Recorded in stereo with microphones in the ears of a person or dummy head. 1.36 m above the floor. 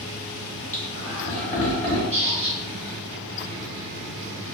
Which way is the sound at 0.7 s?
10° left (ahead or behind).